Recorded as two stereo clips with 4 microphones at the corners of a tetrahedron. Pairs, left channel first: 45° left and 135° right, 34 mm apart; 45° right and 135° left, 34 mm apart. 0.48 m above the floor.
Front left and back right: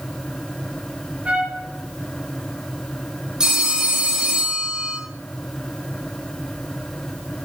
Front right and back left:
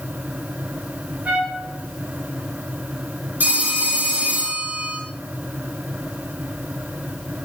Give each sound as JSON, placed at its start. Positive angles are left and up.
{"t": 1.2, "sound": "a trumpet", "azimuth_deg": 175, "distance_m": 4.0}
{"t": 3.4, "sound": "a phone ringing", "azimuth_deg": 160, "distance_m": 5.0}